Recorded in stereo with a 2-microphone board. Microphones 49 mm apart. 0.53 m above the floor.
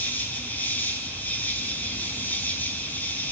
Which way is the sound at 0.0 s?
45° left (ahead or behind).